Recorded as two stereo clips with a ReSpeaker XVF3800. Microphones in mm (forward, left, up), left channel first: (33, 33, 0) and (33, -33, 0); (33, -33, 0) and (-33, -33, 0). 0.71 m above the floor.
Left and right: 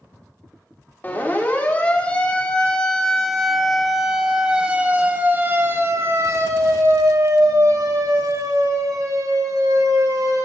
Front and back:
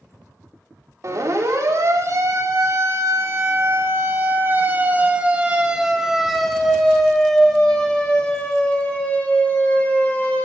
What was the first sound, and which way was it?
A siren, 150° left.